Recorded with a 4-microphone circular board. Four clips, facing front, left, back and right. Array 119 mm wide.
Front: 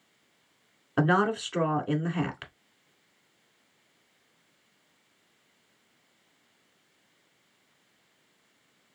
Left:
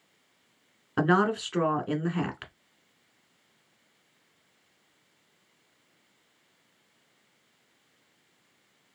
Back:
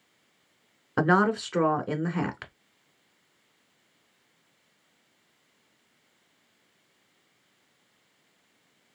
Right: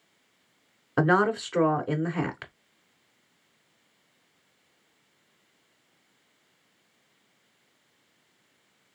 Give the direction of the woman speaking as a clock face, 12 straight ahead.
5 o'clock.